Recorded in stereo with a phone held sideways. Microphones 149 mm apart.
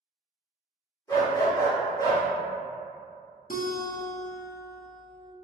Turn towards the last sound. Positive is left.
turn(degrees=70)  # may be behind; listen again after turning